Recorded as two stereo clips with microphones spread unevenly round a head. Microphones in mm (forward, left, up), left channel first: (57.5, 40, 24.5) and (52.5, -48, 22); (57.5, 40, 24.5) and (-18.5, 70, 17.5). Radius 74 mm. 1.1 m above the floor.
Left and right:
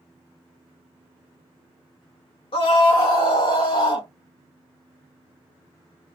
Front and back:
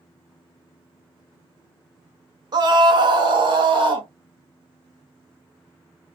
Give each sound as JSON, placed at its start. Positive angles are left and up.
{"t": 2.5, "sound": "a scream", "azimuth_deg": 125, "distance_m": 0.8}